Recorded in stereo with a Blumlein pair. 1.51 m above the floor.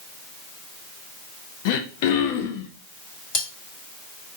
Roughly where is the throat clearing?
Ahead left.